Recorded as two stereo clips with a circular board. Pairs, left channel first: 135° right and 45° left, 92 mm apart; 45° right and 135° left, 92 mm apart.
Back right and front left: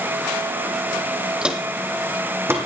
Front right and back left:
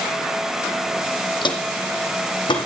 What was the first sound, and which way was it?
Footsteps, 35° right.